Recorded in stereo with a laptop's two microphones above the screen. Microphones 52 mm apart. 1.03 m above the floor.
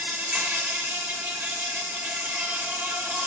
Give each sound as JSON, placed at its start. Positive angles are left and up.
{"t": 0.0, "sound": "an insect", "side_deg": -45, "distance_m": 1.8}